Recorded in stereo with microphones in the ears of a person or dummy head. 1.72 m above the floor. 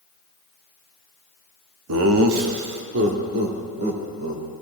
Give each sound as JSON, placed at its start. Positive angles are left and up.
{"t": 1.9, "sound": "laughter", "side_deg": -85, "distance_m": 0.8}